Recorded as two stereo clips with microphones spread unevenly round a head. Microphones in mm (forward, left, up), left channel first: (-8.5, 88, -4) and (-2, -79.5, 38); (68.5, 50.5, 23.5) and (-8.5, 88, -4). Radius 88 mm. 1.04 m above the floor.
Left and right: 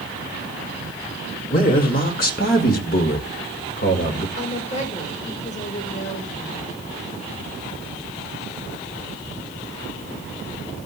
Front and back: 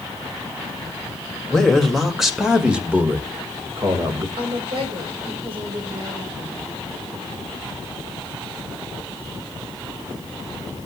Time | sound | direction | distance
1.5 | a man speaking | 65° left | 2.5 m
4.4 | a woman speaking | 145° left | 4 m